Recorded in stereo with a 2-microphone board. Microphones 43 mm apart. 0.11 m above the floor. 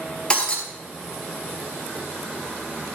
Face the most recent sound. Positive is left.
turn(degrees=20)  # may be behind; listen again after turning